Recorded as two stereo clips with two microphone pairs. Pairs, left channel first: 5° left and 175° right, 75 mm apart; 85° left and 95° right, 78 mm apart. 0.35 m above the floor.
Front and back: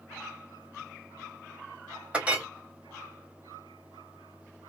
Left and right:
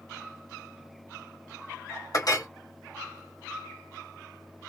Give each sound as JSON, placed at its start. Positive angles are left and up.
{"t": 2.1, "sound": "a clink", "azimuth_deg": 110, "distance_m": 0.9}